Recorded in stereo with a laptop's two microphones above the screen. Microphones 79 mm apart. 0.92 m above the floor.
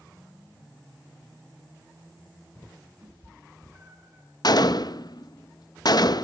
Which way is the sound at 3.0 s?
25° right (ahead or behind).